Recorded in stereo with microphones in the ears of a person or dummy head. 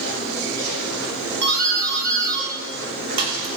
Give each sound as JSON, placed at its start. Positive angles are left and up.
{"t": 1.4, "sound": "a doorbell", "side_deg": -55, "distance_m": 3.5}